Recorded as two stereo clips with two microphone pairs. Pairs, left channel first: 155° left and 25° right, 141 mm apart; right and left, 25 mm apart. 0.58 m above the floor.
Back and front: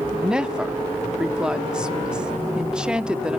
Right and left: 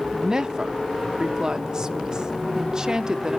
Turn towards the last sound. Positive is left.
turn(degrees=55)